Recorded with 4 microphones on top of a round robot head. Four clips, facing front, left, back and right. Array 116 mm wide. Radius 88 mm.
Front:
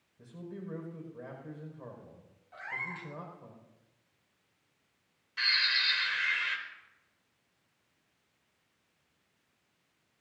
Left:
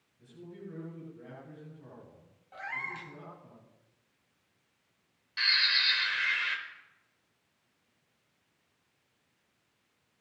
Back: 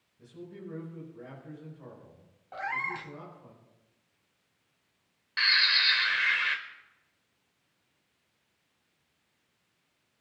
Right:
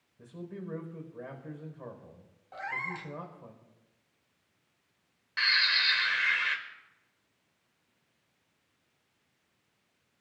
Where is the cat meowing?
165° right, 1.0 m.